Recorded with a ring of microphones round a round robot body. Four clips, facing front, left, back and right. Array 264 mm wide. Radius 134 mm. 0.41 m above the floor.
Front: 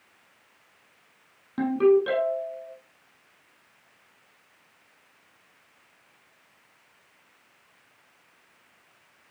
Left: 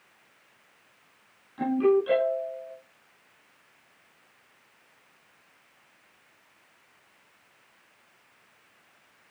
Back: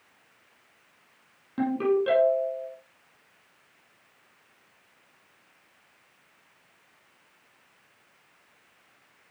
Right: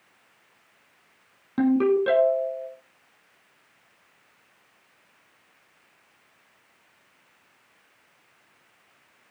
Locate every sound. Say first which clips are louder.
1.6 s a ringtone: right 2 dB, front 5 dB; 95° right, 8 m